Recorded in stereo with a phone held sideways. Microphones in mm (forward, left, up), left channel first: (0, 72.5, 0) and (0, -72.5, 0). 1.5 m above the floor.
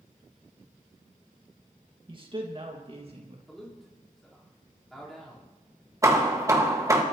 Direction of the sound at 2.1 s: 35° right (ahead or behind).